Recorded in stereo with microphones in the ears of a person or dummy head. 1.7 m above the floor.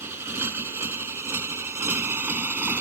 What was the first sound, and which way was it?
A motorcycle, 10° right (ahead or behind).